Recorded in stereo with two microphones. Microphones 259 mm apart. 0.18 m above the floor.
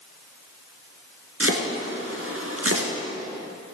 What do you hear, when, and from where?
1.4 s chopping: 60° right (ahead or behind), 1.8 m